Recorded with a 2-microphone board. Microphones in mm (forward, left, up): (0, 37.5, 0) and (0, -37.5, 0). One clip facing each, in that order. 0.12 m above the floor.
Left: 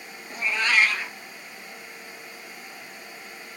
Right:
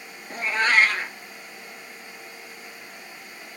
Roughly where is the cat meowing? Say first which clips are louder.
Right 3 dB; right.